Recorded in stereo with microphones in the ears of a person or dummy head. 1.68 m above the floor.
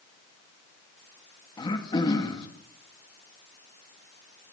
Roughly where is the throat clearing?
Left.